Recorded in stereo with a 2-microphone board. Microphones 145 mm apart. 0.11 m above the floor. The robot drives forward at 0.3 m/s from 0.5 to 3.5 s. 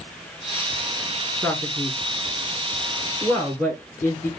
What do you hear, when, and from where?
1.4 s a man speaking: 20° left (ahead or behind), 1.2 m; by 4.3 s 15° left (ahead or behind), 1.4 m